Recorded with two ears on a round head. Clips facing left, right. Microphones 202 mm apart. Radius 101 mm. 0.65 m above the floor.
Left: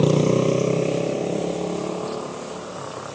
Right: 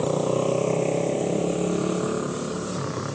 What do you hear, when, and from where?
0.0 s a motorcycle: 45° left (ahead or behind); by 3.1 s 35° right (ahead or behind)